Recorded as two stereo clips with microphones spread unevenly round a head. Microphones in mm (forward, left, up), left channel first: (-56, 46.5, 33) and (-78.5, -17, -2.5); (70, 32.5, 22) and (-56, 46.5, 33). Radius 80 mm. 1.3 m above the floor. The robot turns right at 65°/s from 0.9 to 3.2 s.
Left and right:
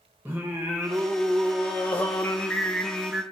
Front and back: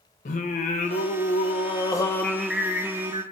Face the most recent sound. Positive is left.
turn(degrees=135)